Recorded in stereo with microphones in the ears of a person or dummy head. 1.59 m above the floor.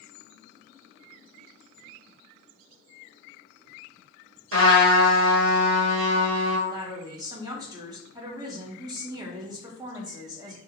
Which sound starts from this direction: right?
A trumpet, at 4.5 s.